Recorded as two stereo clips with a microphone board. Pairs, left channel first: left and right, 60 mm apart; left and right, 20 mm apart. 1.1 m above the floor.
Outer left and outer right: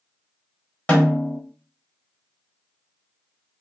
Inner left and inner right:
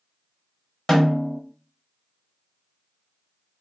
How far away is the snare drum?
About 1.0 m.